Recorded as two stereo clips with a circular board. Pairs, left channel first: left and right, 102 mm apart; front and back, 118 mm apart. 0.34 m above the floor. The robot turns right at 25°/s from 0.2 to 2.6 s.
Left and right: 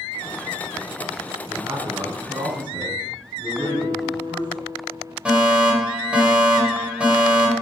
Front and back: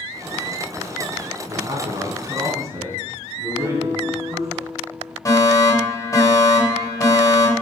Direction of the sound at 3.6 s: 140° left.